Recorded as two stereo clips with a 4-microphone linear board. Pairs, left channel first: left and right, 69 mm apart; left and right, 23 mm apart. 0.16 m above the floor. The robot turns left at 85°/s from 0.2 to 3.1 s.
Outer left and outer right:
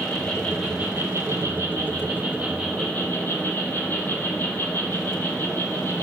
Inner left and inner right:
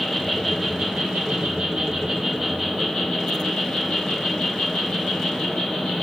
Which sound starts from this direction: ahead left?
An insect, at 0.0 s.